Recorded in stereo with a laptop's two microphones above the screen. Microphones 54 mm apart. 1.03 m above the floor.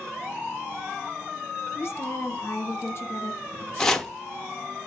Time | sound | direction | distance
1.8 | a woman speaking | 45° left (ahead or behind) | 0.8 m
3.8 | chopping | 10° left (ahead or behind) | 0.6 m